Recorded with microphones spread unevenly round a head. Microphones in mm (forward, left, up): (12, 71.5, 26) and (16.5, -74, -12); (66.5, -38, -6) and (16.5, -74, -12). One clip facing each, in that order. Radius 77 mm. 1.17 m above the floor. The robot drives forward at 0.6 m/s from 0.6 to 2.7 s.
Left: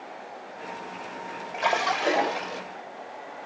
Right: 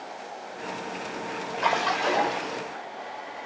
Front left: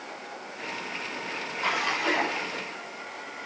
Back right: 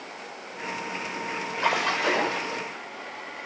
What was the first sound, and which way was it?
A splash, 170° left.